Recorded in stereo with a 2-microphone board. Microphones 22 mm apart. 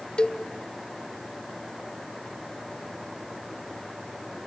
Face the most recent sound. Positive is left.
turn(degrees=45)  # may be behind; listen again after turning